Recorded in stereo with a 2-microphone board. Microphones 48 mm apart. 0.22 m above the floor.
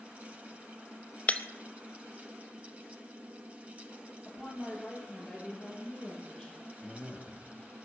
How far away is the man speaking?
About 4.5 m.